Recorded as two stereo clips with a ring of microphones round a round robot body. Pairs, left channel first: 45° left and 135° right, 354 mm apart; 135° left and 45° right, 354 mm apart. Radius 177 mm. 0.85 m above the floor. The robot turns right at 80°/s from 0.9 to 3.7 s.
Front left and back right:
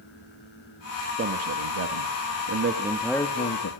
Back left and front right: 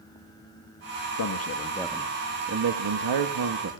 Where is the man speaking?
165° left, 1.6 m; by 3.7 s 5° left, 1.6 m.